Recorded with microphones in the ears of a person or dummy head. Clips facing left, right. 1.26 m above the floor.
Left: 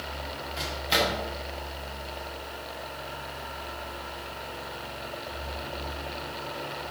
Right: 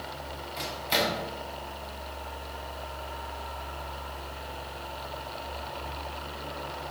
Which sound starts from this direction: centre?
A microwave, at 0.6 s.